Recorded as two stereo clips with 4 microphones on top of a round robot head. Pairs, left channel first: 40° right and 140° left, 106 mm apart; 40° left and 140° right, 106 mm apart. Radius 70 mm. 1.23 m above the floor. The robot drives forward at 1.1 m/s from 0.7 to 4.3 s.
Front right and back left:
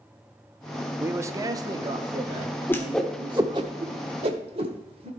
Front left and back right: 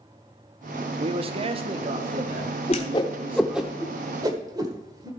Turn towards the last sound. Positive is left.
turn(degrees=165)